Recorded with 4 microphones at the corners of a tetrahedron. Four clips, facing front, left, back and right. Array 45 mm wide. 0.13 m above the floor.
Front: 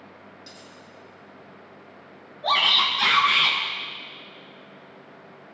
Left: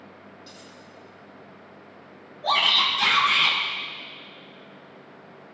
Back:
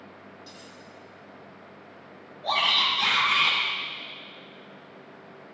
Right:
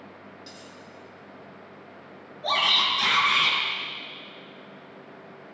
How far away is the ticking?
I don't hear ticking.